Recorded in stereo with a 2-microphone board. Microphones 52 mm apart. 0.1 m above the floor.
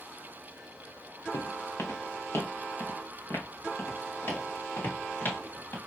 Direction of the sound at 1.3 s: 70° left (ahead or behind).